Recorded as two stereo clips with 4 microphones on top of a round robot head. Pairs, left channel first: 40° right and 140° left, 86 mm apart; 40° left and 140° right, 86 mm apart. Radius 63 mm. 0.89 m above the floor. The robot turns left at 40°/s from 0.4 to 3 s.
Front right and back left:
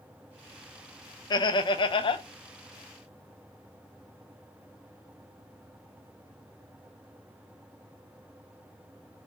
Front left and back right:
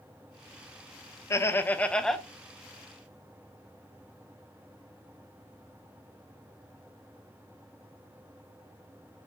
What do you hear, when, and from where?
1.3 s laughter: 10° right, 0.6 m; by 2.2 s 45° right, 0.6 m